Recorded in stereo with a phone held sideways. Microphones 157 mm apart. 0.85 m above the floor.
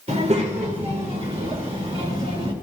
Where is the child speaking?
50° right (ahead or behind), 2 m; by 2.5 s 45° right (ahead or behind), 3.5 m.